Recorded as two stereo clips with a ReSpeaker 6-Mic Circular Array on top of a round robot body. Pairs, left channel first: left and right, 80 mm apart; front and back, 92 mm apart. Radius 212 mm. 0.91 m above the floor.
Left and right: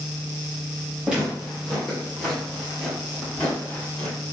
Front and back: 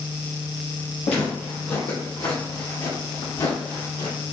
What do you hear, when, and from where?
1.0 s footsteps: 15° right, 1.8 m; by 4.2 s 20° left, 3 m